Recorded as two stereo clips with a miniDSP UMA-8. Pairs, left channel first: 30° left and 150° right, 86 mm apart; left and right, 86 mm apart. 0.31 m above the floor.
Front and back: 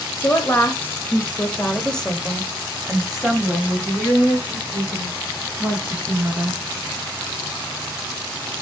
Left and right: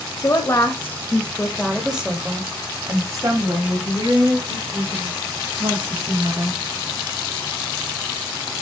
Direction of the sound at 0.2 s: 75° left.